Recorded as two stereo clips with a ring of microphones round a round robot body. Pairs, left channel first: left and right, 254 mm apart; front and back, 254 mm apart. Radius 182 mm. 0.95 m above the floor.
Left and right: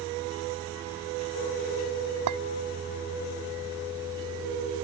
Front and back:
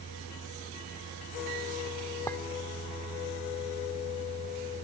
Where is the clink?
80° right.